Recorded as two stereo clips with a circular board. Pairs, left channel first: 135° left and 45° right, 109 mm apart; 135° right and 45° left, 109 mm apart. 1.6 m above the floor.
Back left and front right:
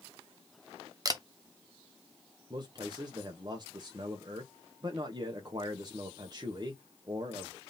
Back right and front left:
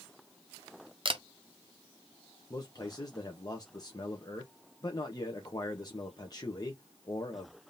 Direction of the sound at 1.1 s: 10° left.